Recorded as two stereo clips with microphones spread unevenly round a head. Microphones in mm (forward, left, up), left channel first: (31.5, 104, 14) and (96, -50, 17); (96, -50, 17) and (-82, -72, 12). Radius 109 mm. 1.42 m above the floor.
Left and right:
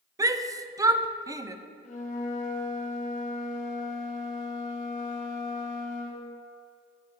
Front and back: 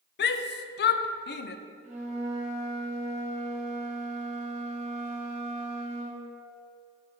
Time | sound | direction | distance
0.2 | a shout | straight ahead | 0.5 m
1.8 | a flute | 145° left | 0.9 m